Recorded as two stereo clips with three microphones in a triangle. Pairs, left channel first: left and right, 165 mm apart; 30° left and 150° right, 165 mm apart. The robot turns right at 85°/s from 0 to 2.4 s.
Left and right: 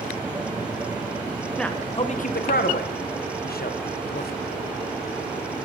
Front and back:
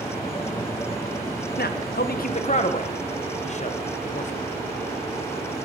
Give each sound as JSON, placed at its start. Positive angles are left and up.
{"t": 1.6, "sound": "a man speaking", "azimuth_deg": 0, "distance_m": 0.7}